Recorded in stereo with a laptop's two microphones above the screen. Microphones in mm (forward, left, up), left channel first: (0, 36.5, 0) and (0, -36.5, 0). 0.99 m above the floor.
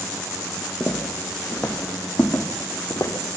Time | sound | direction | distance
0.8 | footsteps | centre (ahead or behind) | 3.5 m